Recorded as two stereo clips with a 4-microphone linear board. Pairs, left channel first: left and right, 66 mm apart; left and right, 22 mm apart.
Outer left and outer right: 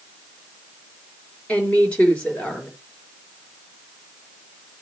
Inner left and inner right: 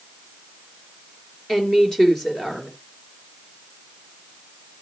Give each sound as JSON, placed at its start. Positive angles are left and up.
{"t": 1.5, "sound": "a woman speaking", "side_deg": 20, "distance_m": 4.5}